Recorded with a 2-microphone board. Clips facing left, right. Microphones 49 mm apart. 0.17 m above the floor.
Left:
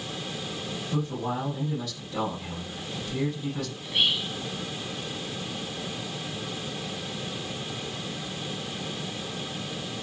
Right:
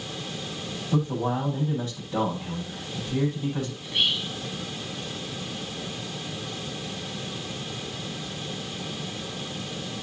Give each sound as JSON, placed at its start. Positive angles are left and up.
{"t": 0.9, "sound": "a man speaking", "side_deg": -30, "distance_m": 6.0}
{"t": 3.8, "sound": "whispering", "side_deg": 5, "distance_m": 1.3}